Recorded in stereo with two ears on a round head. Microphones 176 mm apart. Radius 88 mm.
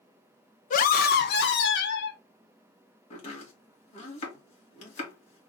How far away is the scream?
About 0.6 m.